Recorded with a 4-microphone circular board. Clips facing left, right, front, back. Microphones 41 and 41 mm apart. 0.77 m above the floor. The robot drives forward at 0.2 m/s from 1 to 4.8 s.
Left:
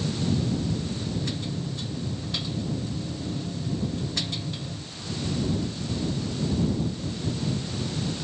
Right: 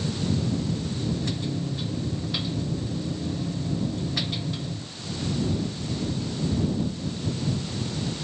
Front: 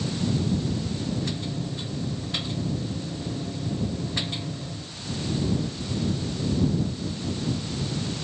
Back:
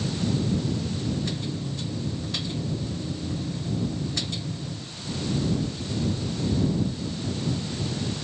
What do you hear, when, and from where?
Only background noise.